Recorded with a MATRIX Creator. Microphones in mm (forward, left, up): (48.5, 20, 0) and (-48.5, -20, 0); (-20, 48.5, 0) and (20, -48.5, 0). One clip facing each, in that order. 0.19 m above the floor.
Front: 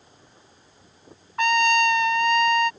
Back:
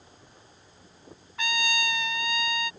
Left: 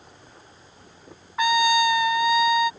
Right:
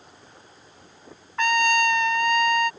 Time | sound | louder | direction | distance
1.4 | a trumpet | front 11 dB, left 1 dB | 30° left | ?